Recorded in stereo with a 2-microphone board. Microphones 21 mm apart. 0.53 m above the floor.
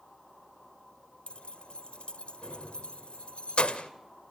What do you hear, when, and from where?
1.3 s keys jangling: 55° left (ahead or behind), 1.6 m